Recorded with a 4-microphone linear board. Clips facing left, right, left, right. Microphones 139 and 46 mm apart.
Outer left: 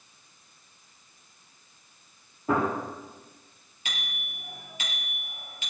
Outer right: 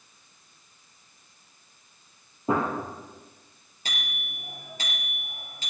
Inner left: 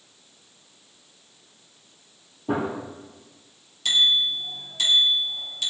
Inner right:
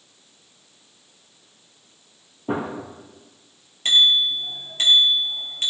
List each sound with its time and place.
2.5 s a gunshot: 25° right (ahead or behind), 8 m
3.9 s a bicycle bell: 40° right (ahead or behind), 4.5 m